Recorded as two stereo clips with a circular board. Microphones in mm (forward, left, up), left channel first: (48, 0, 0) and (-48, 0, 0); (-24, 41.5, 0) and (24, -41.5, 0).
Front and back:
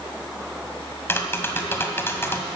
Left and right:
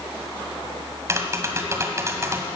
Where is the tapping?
40° right, 1.7 m.